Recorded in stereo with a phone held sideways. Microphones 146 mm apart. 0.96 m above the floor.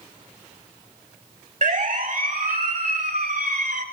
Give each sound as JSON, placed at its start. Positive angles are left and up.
{"t": 1.6, "sound": "a siren", "side_deg": -55, "distance_m": 2.0}